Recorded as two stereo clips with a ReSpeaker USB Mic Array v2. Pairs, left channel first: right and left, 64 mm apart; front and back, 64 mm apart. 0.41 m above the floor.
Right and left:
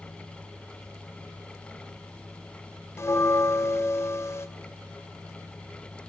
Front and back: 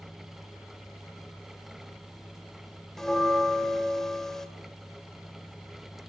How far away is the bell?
About 1.8 m.